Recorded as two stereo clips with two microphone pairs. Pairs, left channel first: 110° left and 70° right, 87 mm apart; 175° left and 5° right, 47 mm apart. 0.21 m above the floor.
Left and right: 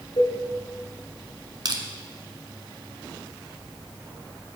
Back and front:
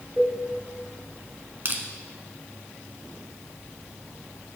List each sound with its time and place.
0.2 s a cowbell: 90° left, 1.8 m
1.6 s crushing: 45° right, 0.9 m